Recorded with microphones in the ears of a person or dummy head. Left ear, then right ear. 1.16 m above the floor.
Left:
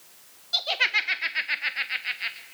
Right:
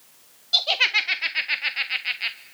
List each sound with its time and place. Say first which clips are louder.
0.5 s laughter: right 4 dB; 20° right (ahead or behind), 1.2 m